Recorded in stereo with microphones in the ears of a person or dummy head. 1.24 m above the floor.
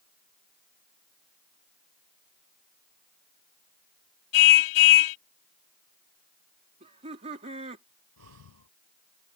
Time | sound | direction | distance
4.3 | a car horn | 85° left | ?
6.8 | laughter | 35° right (ahead or behind) | ?
8.2 | breathing | 85° right | ?